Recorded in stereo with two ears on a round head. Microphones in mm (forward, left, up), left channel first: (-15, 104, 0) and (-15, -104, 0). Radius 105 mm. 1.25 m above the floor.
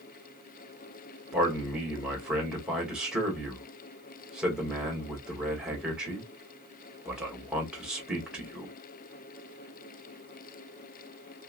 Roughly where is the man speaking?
Centre.